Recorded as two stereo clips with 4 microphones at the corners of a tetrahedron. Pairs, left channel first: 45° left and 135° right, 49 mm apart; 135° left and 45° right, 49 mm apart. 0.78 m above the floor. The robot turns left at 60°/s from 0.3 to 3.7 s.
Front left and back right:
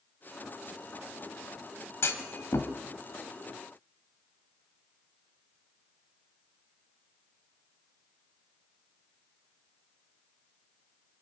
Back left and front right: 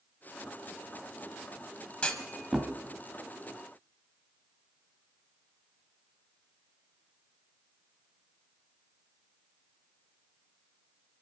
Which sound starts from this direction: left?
A clunk, at 2.0 s.